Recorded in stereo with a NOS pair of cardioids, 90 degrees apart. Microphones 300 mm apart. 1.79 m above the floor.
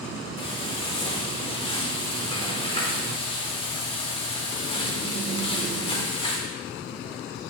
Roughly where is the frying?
Ahead.